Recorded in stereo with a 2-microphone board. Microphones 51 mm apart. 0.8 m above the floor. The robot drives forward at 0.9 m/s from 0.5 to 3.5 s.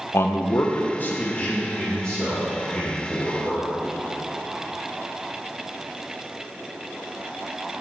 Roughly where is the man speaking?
Left.